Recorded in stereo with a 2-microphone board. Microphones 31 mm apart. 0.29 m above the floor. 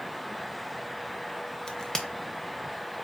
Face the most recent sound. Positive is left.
turn(degrees=20)  # may be behind; listen again after turning